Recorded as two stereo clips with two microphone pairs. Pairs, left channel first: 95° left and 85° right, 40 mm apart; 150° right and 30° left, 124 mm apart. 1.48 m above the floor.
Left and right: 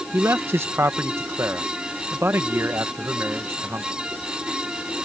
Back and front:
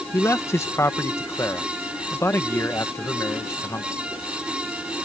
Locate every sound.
0.1 s a man speaking: 85° right